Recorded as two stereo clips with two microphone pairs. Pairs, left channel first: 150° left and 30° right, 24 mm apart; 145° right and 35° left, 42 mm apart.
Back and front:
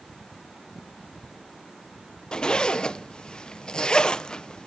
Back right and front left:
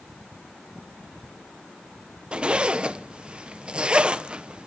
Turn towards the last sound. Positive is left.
turn(degrees=100)